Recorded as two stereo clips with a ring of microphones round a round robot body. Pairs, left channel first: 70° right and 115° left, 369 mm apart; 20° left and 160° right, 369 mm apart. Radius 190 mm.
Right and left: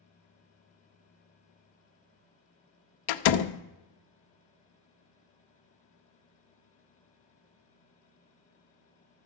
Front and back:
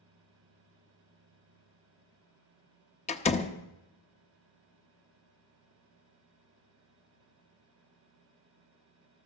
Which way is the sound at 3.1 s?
50° right.